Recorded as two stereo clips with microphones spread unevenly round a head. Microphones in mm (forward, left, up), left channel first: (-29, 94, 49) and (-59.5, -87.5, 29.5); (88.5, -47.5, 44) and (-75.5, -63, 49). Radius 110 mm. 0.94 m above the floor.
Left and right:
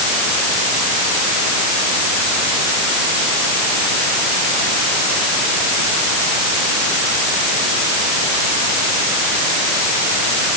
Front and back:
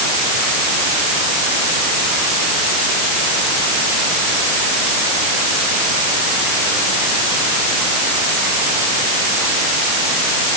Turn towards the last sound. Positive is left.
No sound to turn to.